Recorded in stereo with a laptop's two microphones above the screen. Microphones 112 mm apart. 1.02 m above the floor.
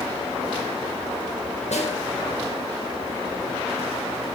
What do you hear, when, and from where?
1.7 s a snare drum: 85° left, 3.5 m